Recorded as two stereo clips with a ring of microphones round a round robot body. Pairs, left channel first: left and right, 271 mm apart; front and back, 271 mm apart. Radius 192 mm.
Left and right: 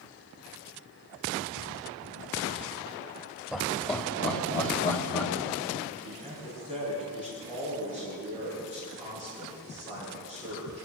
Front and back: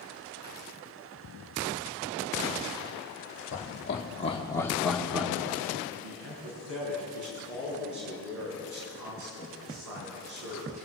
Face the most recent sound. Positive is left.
turn(degrees=175)